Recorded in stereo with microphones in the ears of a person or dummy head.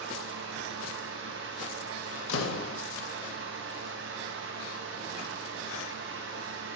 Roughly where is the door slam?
Left.